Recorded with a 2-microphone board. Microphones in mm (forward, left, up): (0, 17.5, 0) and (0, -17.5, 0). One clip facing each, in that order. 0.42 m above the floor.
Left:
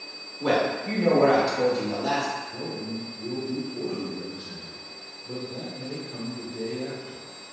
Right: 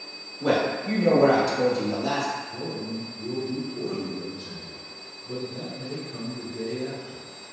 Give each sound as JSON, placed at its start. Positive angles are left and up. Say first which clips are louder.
{"t": 0.4, "sound": "a man speaking", "louder": "even", "side_deg": 20, "distance_m": 0.8}
{"t": 2.5, "sound": "a man speaking", "louder": "right 1 dB", "side_deg": 35, "distance_m": 1.2}